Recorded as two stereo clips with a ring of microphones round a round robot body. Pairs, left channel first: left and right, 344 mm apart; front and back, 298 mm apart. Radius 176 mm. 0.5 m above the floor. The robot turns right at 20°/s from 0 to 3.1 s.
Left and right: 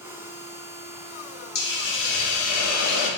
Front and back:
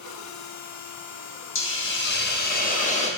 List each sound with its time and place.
1.6 s a hiss: 35° left, 0.8 m; by 3.1 s 65° left, 0.8 m